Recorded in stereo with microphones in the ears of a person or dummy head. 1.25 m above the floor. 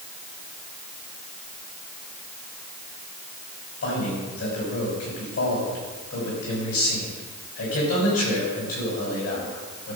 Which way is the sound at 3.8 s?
75° left (ahead or behind).